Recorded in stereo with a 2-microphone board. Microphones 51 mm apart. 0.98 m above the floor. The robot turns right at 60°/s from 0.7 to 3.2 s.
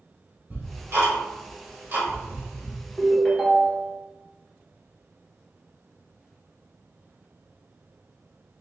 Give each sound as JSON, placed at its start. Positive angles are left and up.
{"t": 0.5, "sound": "ticking", "side_deg": -40, "distance_m": 1.9}
{"t": 3.0, "sound": "a ringtone", "side_deg": -15, "distance_m": 1.2}